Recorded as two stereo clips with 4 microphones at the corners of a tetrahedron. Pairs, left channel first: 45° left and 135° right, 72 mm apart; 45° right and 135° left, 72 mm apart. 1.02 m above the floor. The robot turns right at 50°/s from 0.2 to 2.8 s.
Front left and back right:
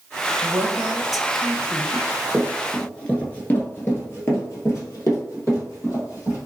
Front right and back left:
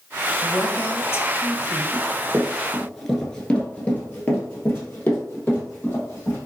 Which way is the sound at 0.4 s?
85° right.